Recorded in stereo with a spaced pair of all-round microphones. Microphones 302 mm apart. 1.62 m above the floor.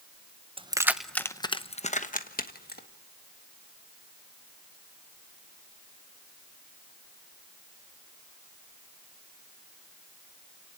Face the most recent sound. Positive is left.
turn(degrees=30)  # may be behind; listen again after turning